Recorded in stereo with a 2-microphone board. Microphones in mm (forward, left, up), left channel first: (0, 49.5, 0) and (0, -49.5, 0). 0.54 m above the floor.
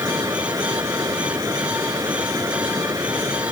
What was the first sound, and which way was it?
Running water, 35° right (ahead or behind).